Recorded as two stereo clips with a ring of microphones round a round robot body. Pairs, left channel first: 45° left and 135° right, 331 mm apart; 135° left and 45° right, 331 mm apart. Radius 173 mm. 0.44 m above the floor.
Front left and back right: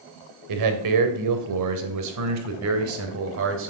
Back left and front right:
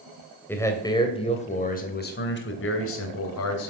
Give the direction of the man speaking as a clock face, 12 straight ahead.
5 o'clock.